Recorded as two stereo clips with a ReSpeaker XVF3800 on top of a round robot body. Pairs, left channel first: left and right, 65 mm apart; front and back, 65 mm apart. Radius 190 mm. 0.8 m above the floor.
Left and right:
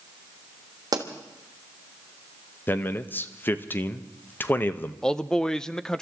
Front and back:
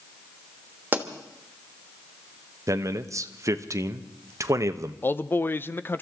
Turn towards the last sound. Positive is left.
turn(degrees=15)